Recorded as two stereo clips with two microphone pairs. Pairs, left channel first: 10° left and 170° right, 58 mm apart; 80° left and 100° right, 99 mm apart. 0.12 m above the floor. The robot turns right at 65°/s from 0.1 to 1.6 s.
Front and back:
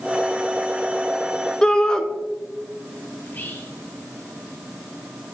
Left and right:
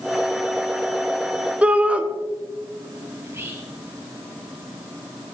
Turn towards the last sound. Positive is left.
turn(degrees=-35)